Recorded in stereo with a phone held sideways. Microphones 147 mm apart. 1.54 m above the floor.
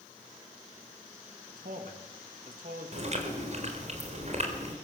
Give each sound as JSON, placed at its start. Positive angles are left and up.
{"t": 1.5, "sound": "a man speaking", "side_deg": -70, "distance_m": 2.5}
{"t": 2.9, "sound": "chewing", "side_deg": -50, "distance_m": 4.0}